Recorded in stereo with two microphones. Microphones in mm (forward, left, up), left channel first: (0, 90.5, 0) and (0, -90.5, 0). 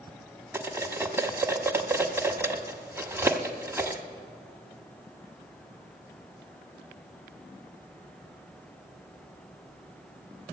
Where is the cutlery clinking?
15° right (ahead or behind), 1.0 m.